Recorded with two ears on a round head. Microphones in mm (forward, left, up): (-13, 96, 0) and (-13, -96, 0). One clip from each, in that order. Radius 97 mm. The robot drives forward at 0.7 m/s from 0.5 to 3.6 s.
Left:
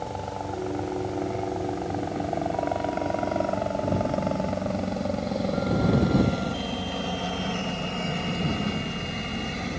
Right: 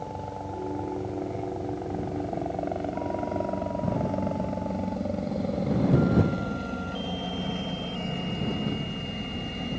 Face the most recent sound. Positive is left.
turn(degrees=40)  # may be behind; listen again after turning